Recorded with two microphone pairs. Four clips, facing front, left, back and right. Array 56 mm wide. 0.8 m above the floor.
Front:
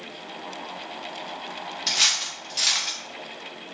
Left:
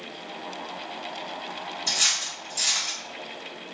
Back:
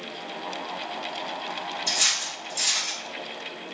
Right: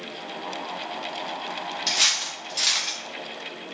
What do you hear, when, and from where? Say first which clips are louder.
1.9 s cutlery clinking: right 3 dB, front 4 dB; 45° right, 0.5 m